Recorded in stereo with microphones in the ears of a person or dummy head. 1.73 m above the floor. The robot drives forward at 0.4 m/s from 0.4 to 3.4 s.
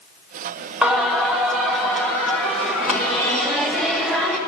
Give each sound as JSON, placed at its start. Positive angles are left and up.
{"t": 0.8, "sound": "singing", "side_deg": -10, "distance_m": 1.2}